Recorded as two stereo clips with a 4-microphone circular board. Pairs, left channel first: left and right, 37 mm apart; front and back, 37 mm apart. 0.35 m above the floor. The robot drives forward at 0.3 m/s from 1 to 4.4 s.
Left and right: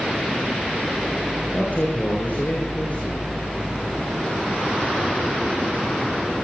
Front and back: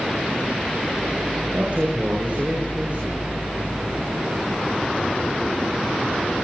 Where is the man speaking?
130° left, 8 m.